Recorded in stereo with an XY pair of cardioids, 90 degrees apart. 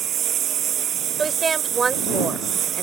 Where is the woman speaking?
35° right.